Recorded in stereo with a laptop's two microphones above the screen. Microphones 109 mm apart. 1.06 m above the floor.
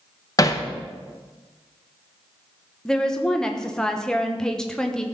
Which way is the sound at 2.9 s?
5° left (ahead or behind).